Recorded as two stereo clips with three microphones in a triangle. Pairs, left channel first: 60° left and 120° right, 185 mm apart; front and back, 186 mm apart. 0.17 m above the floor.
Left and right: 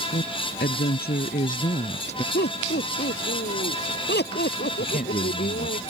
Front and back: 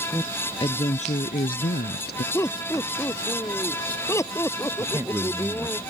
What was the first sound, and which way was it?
A woman speaking, 70° left.